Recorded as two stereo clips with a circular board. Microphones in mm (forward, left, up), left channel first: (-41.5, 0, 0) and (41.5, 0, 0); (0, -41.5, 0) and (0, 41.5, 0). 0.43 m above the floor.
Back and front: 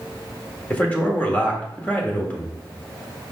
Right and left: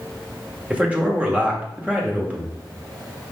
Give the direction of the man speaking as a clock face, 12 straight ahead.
7 o'clock.